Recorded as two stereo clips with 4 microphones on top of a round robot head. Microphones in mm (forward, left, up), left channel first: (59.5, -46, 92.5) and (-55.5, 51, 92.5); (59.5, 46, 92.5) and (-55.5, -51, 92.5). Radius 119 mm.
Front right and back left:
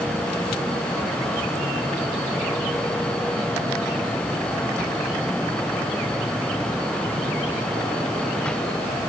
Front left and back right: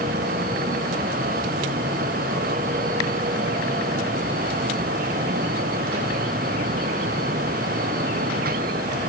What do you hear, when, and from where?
Only background noise.